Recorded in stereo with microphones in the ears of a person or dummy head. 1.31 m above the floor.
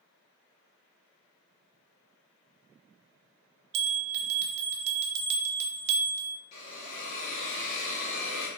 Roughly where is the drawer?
I don't hear a drawer.